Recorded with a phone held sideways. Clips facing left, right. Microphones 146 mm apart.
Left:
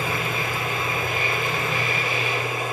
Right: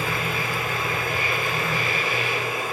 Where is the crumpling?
No crumpling in this recording.